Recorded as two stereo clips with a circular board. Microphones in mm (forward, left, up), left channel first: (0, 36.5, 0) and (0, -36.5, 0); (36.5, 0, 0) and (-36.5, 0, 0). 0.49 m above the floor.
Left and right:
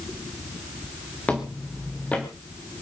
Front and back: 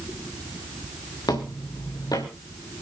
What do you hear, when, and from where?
1.3 s footsteps: 20° left, 3.5 m